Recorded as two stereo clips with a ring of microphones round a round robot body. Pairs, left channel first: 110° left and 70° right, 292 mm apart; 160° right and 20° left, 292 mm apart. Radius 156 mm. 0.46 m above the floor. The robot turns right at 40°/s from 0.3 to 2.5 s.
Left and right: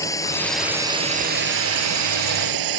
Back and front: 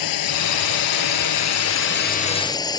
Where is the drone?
170° right; by 2.8 s 80° right.